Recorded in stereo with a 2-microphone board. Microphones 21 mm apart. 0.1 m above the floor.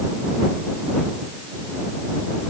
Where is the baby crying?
No baby crying in this recording.